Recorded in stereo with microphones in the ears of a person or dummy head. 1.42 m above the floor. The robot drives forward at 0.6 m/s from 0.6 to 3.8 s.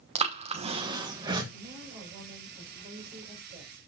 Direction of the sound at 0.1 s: 25° right (ahead or behind).